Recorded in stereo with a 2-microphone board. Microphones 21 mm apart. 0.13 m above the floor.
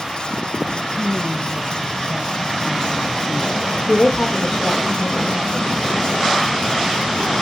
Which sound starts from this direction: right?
A woman speaking, at 0.9 s.